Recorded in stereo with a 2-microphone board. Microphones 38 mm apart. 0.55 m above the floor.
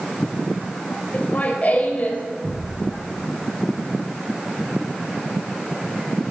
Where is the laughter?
45° left (ahead or behind), 3 m.